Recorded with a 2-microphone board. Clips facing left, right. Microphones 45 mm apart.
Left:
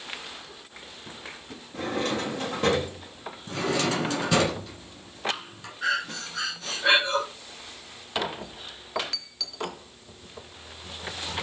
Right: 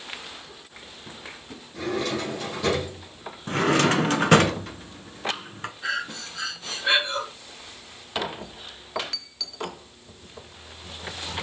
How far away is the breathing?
About 2 m.